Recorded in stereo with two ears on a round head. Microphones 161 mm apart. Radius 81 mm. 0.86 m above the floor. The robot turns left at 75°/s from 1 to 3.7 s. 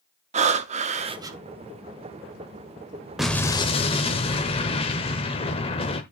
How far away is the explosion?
About 1.1 m.